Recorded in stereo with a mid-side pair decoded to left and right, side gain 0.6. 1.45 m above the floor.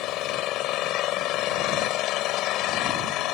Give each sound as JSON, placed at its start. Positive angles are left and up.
{"t": 0.0, "sound": "an engine running", "azimuth_deg": 70}